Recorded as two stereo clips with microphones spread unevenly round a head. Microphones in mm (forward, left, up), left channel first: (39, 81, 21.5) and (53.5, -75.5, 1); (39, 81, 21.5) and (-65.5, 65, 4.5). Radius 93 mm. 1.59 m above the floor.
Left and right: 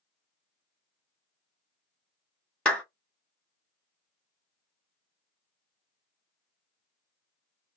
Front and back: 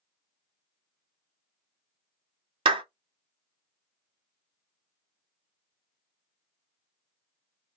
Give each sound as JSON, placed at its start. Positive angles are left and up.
{"t": 2.6, "sound": "a clap", "azimuth_deg": 170, "distance_m": 0.6}